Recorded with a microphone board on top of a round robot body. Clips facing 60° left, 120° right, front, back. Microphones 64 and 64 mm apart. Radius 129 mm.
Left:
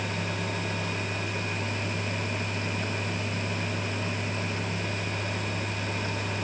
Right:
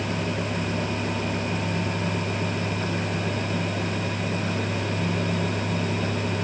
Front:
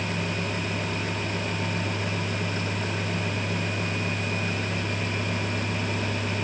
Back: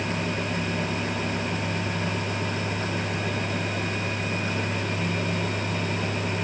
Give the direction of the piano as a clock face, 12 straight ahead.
No piano in this recording.